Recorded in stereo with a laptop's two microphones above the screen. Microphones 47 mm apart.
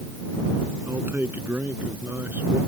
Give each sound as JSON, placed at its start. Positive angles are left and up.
{"t": 0.9, "sound": "a man speaking", "side_deg": -50}